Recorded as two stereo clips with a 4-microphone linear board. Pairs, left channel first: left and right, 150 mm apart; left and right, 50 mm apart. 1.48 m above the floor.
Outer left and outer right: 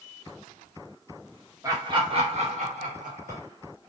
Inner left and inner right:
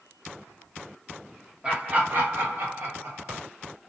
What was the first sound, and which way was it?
Laughter, 20° right (ahead or behind).